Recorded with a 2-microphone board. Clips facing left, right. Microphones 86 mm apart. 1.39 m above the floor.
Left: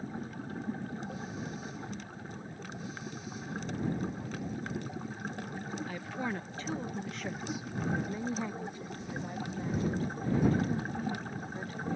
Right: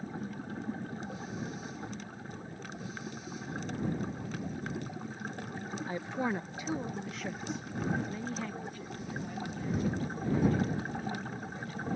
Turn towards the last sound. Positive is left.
turn(degrees=45)  # may be behind; listen again after turning